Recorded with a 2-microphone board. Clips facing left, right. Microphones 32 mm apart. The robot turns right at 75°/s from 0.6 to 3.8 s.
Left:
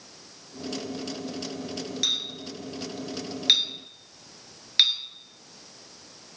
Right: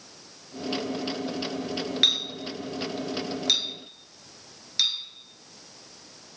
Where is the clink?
45° right (ahead or behind), 1.3 m; by 5.0 s 45° left (ahead or behind), 1.3 m.